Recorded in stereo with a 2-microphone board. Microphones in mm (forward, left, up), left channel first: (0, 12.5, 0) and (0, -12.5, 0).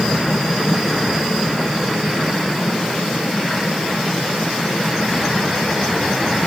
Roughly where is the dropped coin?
No dropped coin in this recording.